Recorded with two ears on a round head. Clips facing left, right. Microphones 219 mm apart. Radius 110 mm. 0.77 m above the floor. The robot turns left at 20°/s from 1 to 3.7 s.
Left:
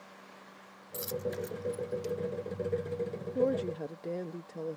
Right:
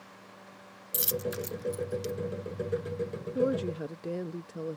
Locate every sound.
0.9 s a dropped coin: 45° right (ahead or behind); by 2.1 s 25° right (ahead or behind)
3.4 s a woman speaking: 10° right (ahead or behind); by 4.8 s 15° right (ahead or behind)